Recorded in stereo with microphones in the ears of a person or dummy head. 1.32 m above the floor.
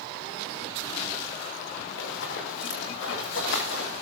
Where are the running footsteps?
75° left (ahead or behind), 7 m.